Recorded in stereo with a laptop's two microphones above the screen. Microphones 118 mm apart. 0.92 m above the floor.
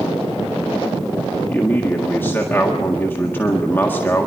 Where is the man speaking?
20° left (ahead or behind), 1.8 m.